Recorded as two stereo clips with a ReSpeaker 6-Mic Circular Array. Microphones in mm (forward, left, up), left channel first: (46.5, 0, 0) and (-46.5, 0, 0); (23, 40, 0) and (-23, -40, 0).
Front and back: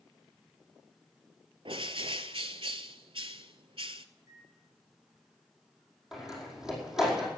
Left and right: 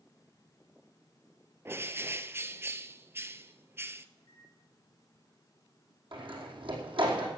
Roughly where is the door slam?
Right.